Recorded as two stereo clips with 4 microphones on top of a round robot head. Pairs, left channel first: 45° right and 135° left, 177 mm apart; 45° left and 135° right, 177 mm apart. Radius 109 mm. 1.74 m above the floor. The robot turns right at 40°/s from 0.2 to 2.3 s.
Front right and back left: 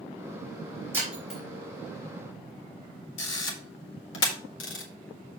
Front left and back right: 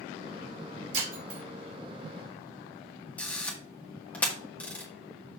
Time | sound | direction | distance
0.9 | breaking glass | 145° right | 3.5 m
3.2 | a camera shutter | 40° right | 1.7 m